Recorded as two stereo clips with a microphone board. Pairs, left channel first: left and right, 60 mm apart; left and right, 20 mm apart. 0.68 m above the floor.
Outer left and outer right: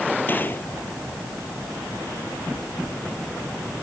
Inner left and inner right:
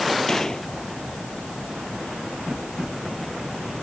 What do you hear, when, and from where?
0.3 s a gunshot: 30° left (ahead or behind)